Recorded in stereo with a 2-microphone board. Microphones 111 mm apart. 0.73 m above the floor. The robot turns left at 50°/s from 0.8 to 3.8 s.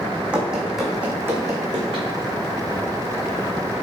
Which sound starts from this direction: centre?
Running footsteps, at 0.3 s.